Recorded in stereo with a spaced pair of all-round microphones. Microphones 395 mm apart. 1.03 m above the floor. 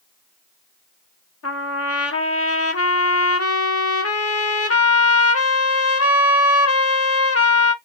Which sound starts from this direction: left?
A trumpet, at 1.4 s.